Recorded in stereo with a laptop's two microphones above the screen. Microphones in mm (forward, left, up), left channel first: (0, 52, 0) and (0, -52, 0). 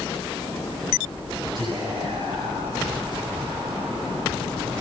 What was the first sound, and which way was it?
Whispering, 45° right (ahead or behind).